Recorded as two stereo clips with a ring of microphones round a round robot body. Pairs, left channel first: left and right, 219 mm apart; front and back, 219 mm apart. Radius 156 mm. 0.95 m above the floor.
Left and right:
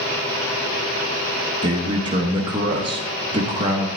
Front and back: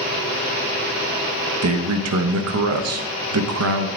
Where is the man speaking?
165° right, 0.7 m.